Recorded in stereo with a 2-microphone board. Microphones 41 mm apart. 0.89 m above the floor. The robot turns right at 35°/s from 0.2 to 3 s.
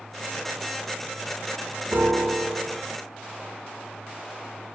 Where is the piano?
90° right, 5 m; by 2.8 s 55° right, 5 m.